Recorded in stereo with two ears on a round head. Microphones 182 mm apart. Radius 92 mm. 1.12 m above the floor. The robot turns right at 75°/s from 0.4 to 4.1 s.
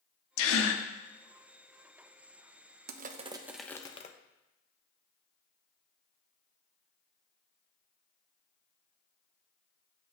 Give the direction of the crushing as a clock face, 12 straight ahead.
2 o'clock.